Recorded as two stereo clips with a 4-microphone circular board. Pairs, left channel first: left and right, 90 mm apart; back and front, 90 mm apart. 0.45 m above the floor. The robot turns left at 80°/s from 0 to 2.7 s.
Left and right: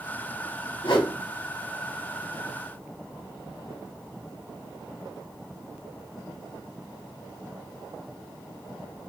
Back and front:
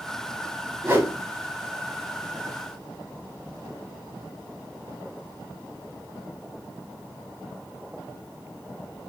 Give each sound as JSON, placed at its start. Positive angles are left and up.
{"t": 0.8, "sound": "a whoosh", "azimuth_deg": 70, "distance_m": 0.8}